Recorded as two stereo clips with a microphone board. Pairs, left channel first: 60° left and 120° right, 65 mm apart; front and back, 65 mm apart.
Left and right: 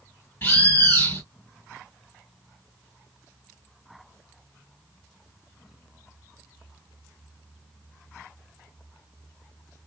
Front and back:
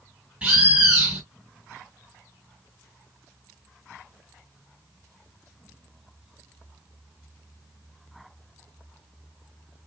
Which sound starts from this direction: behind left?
A bird, at 0.4 s.